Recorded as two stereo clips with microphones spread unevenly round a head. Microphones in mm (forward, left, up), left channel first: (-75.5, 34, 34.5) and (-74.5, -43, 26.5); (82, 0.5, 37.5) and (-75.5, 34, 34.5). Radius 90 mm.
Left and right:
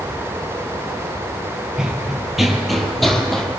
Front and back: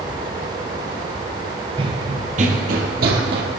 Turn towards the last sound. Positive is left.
turn(degrees=170)